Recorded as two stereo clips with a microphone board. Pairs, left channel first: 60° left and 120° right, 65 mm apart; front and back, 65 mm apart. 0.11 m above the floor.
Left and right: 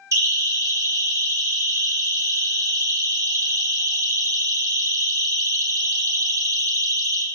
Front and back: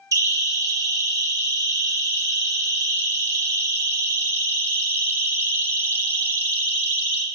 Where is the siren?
155° right, 8 m; by 7.2 s 115° right, 5 m.